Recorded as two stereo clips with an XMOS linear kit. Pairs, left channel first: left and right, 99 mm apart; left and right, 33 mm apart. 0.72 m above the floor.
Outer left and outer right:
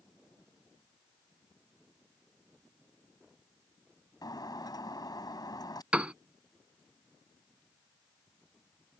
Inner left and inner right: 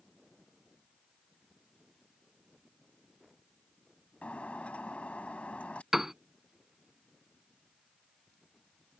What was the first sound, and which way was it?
Breaking glass, 45° left (ahead or behind).